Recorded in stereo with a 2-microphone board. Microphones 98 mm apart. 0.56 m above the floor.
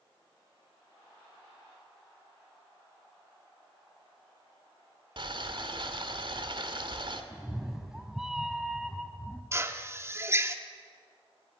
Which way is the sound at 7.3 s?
5° right (ahead or behind).